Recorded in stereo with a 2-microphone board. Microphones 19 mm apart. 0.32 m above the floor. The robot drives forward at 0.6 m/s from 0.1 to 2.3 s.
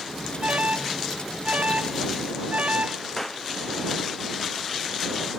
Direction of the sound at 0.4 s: 80° right.